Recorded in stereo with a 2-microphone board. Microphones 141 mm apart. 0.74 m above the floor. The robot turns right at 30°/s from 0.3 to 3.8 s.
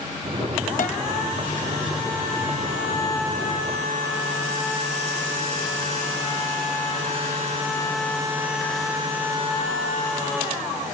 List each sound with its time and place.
0.8 s a piano: 80° left, 0.7 m